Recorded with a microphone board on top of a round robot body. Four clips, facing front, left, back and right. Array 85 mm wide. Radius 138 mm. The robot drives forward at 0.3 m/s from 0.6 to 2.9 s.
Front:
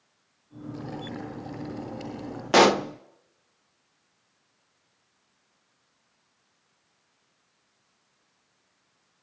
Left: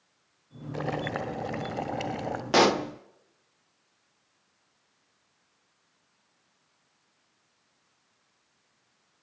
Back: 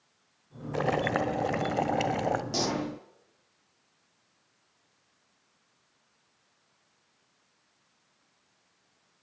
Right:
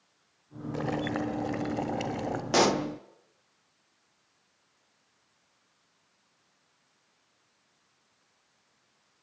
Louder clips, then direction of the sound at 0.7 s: Right 1 dB, back 10 dB; 175° left.